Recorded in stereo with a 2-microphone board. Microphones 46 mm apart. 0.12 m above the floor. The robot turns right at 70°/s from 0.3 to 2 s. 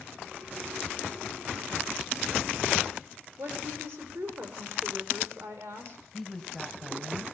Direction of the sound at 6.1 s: 5° left (ahead or behind).